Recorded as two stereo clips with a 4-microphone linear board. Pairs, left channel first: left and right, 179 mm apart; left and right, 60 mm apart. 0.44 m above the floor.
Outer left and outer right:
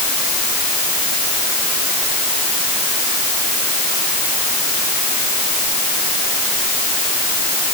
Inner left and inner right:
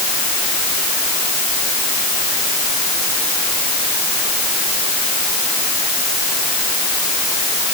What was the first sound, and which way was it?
Only background noise.